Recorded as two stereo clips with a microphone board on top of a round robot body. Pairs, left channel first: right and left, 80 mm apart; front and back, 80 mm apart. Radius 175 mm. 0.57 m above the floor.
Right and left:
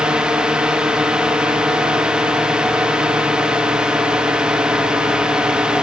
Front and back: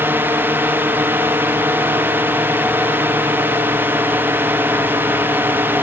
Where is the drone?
155° left.